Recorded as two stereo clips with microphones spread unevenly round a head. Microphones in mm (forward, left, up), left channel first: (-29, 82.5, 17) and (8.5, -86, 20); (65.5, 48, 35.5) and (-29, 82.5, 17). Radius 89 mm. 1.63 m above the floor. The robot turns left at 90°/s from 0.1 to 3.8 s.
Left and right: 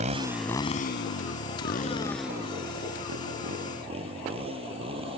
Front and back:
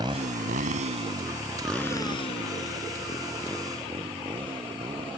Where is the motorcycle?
130° right; by 5.2 s 140° right.